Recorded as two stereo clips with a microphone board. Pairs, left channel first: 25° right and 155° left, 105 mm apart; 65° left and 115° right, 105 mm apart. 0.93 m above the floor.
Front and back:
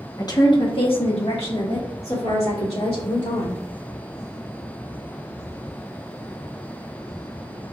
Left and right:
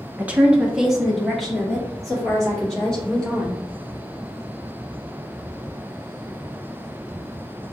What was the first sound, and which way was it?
A woman speaking, 50° right.